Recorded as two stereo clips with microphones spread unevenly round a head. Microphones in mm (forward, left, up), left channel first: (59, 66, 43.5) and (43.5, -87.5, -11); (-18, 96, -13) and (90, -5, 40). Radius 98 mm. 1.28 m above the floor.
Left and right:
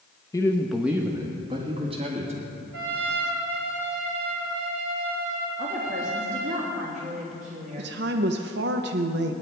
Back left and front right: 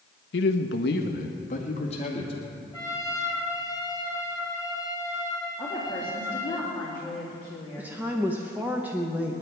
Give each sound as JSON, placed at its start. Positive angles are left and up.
{"t": 0.3, "sound": "a man speaking", "azimuth_deg": 155, "distance_m": 0.9}
{"t": 2.7, "sound": "a trumpet", "azimuth_deg": -140, "distance_m": 1.8}
{"t": 5.6, "sound": "a woman speaking", "azimuth_deg": -145, "distance_m": 3.0}
{"t": 7.8, "sound": "a woman speaking", "azimuth_deg": -125, "distance_m": 0.8}